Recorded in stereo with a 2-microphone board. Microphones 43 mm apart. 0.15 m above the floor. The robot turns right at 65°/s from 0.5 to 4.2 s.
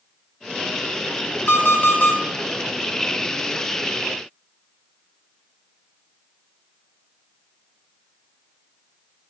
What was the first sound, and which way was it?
An alarm clock, 90° left.